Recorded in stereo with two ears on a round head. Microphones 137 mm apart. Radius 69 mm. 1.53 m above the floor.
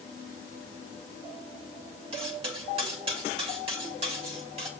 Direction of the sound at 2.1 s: 40° right (ahead or behind).